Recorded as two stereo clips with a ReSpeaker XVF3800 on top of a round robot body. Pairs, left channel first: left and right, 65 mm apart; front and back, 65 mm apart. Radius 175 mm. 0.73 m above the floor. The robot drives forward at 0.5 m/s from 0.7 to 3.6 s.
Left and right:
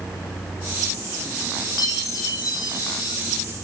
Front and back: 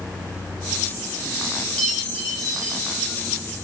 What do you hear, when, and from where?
1.8 s a chime: 75° left, 4 m; by 3.2 s 85° left, 3.5 m